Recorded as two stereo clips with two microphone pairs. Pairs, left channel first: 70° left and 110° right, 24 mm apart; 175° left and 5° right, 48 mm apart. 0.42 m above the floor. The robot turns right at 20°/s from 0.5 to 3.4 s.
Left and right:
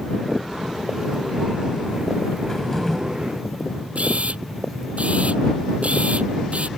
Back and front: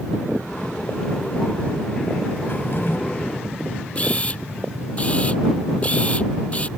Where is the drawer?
135° left; by 3.0 s 145° left.